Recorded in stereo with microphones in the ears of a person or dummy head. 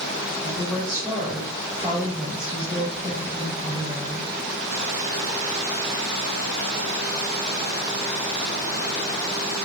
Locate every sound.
0.4 s a woman speaking: 5° right (ahead or behind), 2.5 m